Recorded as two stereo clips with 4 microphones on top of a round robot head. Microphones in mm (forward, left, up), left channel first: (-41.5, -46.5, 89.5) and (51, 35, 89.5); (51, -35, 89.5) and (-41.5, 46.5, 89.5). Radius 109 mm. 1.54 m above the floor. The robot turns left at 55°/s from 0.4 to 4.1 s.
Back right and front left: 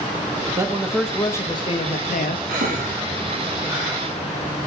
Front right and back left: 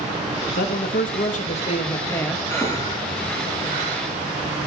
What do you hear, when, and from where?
0.6 s a man speaking: 25° right, 0.5 m; by 2.4 s 125° right, 0.5 m
2.5 s breathing: 35° left, 1.7 m; by 4.0 s 50° right, 1.7 m